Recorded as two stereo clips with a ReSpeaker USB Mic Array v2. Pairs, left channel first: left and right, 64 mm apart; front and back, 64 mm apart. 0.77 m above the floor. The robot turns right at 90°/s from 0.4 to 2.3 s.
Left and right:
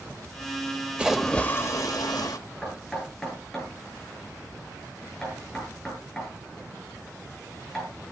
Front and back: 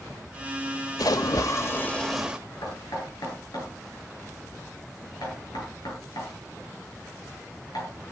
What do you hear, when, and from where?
1.0 s a splash: 15° right, 1.0 m; by 2.4 s 105° left, 1.0 m
2.6 s knocking: 5° left, 9 m